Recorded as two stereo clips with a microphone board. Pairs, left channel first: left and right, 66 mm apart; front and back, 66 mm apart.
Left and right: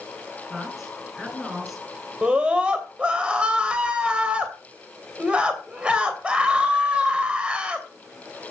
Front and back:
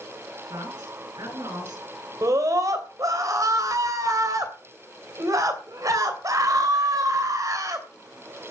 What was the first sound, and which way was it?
A man speaking, 175° right.